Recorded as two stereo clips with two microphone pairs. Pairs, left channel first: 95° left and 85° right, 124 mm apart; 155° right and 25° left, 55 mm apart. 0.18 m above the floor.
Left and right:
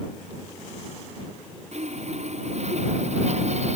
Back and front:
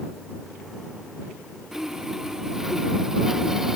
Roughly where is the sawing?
Ahead right.